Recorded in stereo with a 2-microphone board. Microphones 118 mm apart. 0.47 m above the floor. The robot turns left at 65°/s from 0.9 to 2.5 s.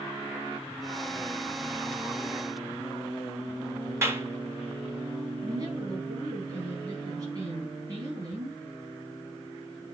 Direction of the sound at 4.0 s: 25° right (ahead or behind).